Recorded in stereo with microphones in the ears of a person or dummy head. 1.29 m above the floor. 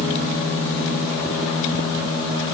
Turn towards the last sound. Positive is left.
No sound to turn to.